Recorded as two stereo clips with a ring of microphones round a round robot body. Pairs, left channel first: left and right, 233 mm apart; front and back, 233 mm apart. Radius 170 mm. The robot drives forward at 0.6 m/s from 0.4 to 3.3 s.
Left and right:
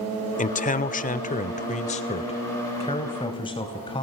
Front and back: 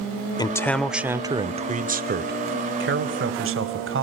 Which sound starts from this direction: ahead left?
A man speaking, at 0.4 s.